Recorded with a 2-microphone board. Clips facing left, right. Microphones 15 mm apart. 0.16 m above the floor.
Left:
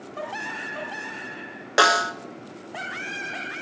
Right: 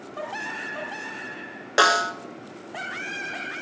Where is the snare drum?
10° left (ahead or behind), 1.1 m.